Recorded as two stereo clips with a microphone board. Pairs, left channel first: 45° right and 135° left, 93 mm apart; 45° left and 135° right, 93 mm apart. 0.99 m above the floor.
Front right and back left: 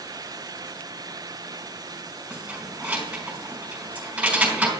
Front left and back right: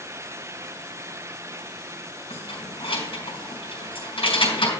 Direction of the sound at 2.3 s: 60° left.